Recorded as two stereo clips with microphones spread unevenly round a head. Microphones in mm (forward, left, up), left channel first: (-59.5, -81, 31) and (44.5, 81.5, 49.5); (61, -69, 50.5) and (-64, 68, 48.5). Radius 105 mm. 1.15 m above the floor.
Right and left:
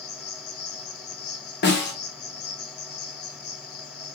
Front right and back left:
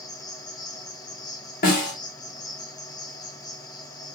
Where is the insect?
115° right, 0.8 m.